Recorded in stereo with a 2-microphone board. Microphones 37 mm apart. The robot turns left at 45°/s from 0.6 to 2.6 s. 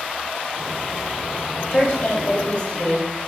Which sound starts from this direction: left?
A woman speaking, at 1.7 s.